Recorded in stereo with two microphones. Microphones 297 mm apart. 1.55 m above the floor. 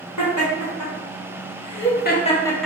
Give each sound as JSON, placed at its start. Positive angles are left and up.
{"t": 0.2, "sound": "laughter", "side_deg": 80, "distance_m": 1.3}